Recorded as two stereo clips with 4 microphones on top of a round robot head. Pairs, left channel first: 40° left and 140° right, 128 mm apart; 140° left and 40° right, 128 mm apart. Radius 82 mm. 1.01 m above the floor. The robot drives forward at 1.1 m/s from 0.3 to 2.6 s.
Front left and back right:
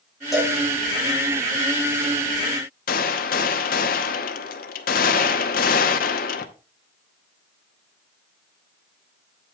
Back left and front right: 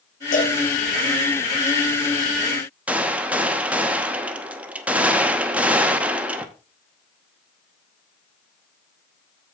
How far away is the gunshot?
About 0.9 m.